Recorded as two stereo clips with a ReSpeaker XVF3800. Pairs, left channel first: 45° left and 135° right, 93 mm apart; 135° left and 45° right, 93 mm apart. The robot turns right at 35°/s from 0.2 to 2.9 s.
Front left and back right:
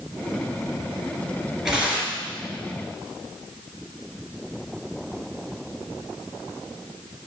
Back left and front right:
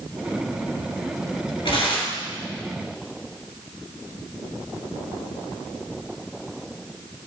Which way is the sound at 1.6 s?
140° left.